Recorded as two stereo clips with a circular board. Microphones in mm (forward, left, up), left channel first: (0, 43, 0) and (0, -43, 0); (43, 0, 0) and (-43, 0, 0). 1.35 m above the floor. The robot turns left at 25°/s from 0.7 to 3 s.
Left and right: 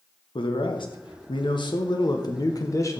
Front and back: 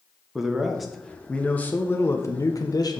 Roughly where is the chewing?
I don't hear chewing.